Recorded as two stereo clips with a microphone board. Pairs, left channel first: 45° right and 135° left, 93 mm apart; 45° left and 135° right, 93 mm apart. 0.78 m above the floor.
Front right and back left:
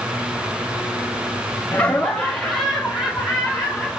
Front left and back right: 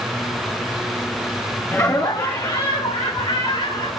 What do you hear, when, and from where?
1.7 s laughter: 5° left, 0.7 m; by 4.0 s 50° left, 2.5 m